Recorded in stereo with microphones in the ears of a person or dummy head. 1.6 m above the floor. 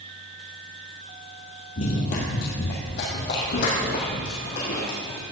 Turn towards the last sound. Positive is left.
turn(degrees=65)  # may be behind; listen again after turning